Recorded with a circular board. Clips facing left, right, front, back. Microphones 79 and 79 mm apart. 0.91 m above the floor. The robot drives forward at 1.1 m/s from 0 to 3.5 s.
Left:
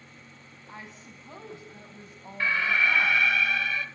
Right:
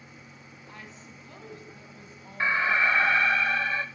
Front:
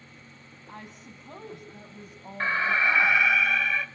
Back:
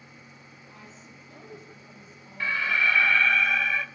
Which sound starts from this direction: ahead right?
An alarm, at 2.4 s.